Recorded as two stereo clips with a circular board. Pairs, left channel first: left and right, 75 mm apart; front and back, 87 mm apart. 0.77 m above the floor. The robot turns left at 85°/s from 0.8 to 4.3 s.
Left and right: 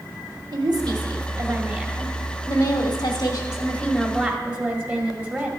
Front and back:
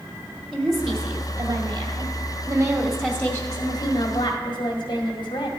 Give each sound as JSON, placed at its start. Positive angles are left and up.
{"t": 0.5, "sound": "a woman speaking", "azimuth_deg": -85, "distance_m": 1.8}